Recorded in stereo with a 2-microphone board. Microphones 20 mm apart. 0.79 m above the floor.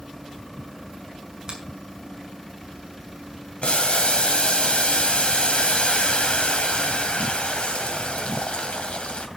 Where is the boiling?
75° left (ahead or behind), 2 m.